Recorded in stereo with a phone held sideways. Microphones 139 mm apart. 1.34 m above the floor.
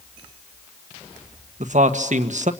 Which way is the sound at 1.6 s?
60° right (ahead or behind).